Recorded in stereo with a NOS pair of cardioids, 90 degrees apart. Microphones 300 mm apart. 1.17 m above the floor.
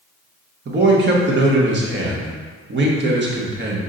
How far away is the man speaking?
About 1.2 m.